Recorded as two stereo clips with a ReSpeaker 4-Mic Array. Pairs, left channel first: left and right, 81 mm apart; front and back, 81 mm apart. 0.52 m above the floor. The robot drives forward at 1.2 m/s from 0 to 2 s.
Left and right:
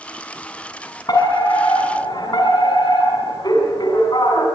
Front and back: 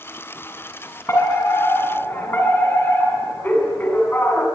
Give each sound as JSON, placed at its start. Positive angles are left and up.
{"t": 1.1, "sound": "a fire alarm", "azimuth_deg": 55, "distance_m": 7.0}